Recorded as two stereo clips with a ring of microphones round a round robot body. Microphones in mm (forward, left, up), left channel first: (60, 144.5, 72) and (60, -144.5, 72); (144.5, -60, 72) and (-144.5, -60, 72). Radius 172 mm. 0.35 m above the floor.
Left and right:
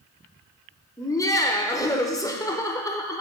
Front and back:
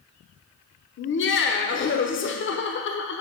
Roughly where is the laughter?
Ahead.